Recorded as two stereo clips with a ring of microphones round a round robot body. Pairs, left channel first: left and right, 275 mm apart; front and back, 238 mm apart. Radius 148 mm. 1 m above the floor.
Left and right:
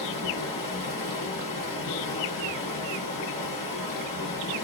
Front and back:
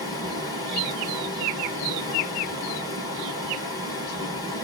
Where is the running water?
75° left, 3 m.